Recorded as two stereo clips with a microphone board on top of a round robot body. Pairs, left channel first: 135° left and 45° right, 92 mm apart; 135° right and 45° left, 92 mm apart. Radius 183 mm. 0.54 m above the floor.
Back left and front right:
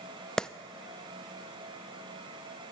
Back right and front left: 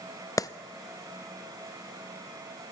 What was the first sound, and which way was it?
A clap, 150° right.